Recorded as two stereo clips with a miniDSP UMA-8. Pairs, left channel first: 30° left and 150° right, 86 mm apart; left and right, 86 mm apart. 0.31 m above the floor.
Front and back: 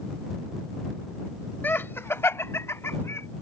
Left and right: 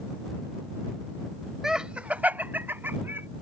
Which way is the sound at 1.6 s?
10° right.